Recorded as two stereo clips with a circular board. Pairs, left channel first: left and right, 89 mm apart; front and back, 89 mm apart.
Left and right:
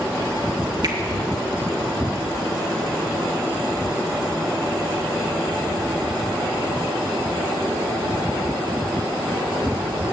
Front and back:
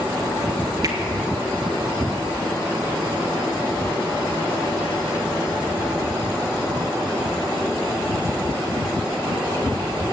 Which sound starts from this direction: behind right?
A finger snap, at 0.8 s.